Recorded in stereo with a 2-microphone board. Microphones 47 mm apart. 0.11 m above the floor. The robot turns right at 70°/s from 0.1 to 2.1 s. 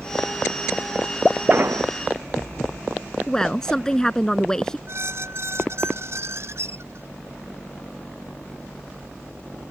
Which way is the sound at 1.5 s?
40° right (ahead or behind).